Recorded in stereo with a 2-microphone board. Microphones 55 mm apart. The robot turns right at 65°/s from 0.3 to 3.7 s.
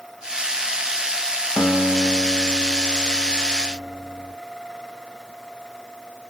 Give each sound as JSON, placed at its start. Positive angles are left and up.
{"t": 1.6, "sound": "a guitar", "azimuth_deg": 125, "distance_m": 0.8}